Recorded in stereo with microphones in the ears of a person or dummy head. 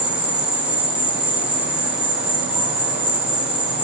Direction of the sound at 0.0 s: 10° right (ahead or behind).